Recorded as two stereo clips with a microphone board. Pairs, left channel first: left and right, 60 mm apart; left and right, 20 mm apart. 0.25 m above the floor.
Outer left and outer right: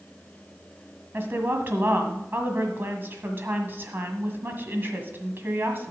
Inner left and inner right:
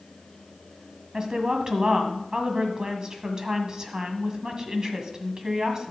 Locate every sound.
1.1 s a woman speaking: 40° right (ahead or behind), 1.7 m